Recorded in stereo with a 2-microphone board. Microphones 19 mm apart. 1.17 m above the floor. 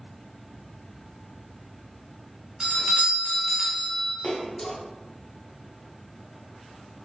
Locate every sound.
2.6 s a doorbell: 55° right (ahead or behind), 1.1 m
4.2 s a splash: 30° left (ahead or behind), 0.8 m